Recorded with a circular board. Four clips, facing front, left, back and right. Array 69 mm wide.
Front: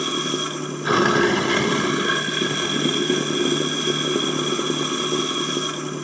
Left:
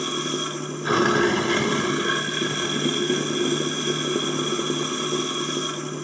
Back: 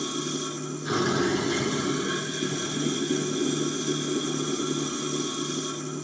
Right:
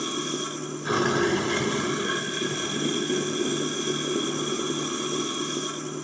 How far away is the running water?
About 0.9 m.